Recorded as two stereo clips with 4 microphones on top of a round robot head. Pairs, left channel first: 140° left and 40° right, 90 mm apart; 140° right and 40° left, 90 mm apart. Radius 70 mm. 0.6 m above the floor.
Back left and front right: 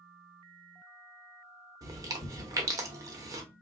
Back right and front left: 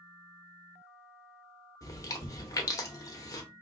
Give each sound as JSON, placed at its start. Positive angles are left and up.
{"t": 1.8, "sound": "chewing", "azimuth_deg": -90, "distance_m": 1.0}